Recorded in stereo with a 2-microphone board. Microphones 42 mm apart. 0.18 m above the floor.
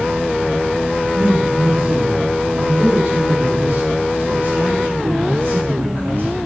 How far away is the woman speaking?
About 4 m.